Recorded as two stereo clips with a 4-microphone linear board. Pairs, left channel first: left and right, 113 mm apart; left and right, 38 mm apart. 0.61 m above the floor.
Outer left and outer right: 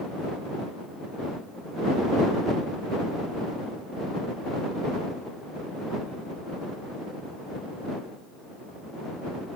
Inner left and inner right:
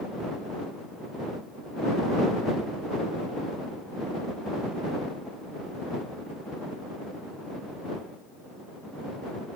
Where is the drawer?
No drawer in this recording.